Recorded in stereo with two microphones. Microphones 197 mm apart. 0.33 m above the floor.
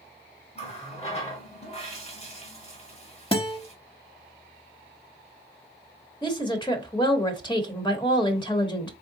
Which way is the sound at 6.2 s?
25° left (ahead or behind).